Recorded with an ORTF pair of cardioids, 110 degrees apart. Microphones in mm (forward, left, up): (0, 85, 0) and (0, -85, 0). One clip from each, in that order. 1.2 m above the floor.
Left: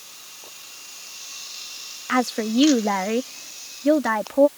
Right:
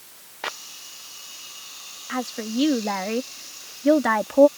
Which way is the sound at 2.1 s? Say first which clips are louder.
Left 7 dB; 45° left.